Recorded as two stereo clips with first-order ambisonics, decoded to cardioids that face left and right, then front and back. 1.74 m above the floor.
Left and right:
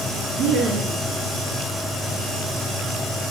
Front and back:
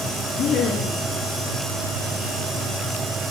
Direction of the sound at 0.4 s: 50° right.